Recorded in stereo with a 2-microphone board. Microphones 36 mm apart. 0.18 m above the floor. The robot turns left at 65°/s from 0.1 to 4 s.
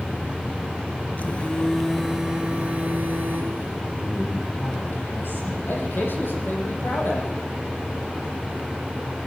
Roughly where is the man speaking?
Left.